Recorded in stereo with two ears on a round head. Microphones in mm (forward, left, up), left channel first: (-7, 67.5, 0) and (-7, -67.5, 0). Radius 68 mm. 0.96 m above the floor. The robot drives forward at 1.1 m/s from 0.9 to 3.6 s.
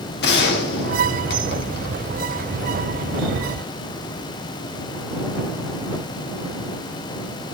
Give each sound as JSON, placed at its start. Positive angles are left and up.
{"t": 0.2, "sound": "a gunshot", "side_deg": 70, "distance_m": 2.5}